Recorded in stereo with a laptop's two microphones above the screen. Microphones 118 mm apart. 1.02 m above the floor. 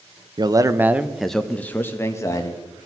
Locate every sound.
0.4 s a man speaking: 40° right (ahead or behind), 0.5 m; by 2.6 s 30° left (ahead or behind), 1.2 m